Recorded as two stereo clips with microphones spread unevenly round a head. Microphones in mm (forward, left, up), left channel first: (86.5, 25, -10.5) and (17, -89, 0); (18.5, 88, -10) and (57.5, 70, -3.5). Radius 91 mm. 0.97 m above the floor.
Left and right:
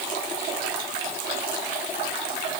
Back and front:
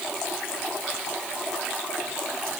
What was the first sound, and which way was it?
Only background noise.